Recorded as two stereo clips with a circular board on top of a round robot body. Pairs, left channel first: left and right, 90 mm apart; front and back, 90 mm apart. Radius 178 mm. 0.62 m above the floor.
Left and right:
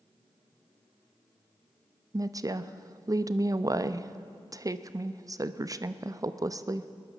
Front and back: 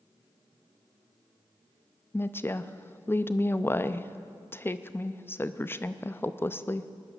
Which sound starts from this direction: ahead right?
A woman speaking, at 2.1 s.